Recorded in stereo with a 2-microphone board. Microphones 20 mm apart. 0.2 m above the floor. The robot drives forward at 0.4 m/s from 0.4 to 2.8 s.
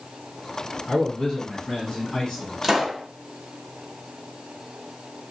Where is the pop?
20° right (ahead or behind), 0.9 m.